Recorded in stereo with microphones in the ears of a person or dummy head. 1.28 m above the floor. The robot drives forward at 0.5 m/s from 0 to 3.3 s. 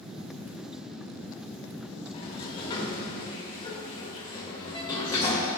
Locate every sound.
2.1 s a sliding door: 35° left (ahead or behind), 1.1 m; by 5.5 s 20° left (ahead or behind), 1.6 m